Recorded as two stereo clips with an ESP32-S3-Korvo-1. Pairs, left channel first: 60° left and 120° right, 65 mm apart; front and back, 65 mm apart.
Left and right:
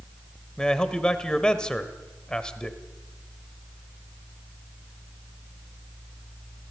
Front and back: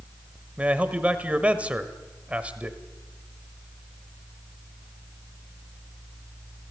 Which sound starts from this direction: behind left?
A man speaking, at 0.6 s.